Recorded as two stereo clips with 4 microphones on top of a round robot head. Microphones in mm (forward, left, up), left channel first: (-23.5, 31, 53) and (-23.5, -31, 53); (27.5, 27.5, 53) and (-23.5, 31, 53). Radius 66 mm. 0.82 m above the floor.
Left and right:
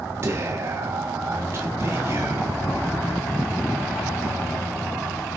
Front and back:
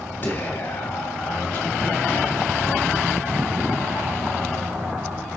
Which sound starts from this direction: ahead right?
Whispering, at 0.2 s.